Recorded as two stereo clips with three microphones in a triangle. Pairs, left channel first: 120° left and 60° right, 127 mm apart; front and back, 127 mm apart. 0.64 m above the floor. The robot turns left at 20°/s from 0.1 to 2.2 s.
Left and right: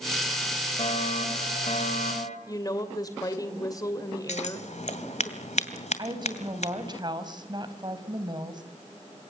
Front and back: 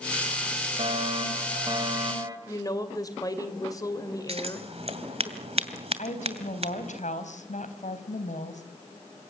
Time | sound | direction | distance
0.8 | a fire alarm | 150° left | 5 m
2.5 | a woman speaking | 60° left | 2.5 m
4.3 | scissors | 145° left | 2.5 m
6.0 | a woman speaking | 5° right | 3.5 m